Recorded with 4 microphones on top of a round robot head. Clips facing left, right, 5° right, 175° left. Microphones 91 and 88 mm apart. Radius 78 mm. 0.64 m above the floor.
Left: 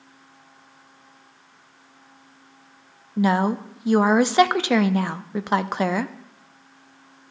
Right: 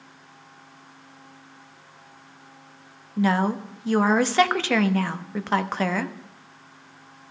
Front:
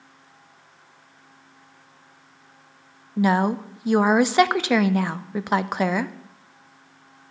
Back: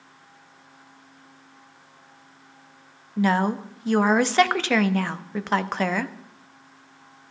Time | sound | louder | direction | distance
3.2 | a woman speaking | left 2 dB, front 2 dB | 50° left | 0.6 m